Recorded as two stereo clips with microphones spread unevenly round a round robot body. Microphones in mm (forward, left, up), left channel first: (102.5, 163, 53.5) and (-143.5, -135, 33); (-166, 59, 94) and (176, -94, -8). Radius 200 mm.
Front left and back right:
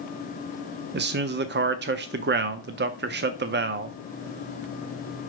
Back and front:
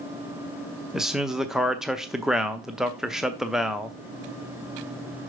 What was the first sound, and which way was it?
A man speaking, 90° right.